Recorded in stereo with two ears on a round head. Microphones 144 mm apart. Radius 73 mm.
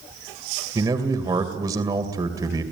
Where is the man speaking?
25° right (ahead or behind), 2.5 m.